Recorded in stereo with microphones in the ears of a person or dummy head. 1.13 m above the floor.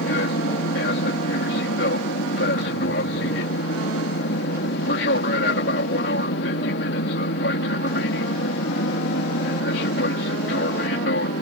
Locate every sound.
0.0 s an aircraft: 55° left (ahead or behind)